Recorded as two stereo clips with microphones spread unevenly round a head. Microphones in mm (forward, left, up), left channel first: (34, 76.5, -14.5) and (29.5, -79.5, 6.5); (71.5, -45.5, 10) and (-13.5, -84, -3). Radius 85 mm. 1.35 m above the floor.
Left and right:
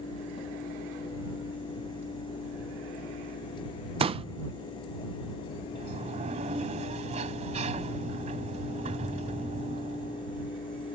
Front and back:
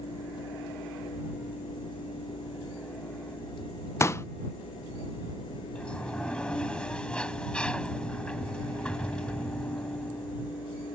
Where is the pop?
35° right.